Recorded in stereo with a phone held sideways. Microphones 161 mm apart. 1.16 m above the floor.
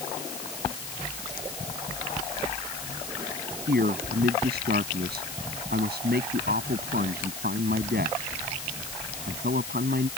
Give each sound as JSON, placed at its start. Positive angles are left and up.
{"t": 3.7, "sound": "a man speaking", "side_deg": -85}